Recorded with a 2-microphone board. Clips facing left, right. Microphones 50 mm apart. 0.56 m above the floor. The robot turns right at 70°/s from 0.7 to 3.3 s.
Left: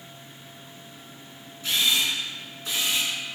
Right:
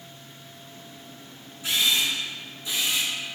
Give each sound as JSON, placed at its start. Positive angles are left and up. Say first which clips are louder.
{"t": 1.6, "sound": "a camera shutter", "louder": "even", "side_deg": -15, "distance_m": 2.0}